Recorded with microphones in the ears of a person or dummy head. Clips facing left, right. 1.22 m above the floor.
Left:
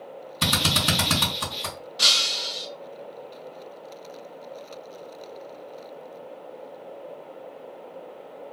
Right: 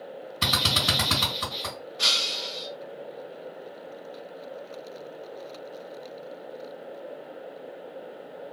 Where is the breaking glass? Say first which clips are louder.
Left 1 dB; 60° left (ahead or behind), 0.8 m.